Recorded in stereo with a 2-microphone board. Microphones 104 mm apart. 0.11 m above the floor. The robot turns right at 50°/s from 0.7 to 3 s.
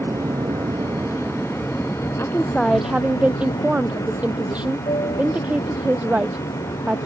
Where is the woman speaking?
155° left; by 7.1 s 165° right.